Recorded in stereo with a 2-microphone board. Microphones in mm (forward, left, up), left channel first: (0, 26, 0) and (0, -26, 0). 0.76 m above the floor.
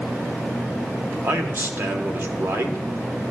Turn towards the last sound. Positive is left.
turn(degrees=-55)  # may be behind; listen again after turning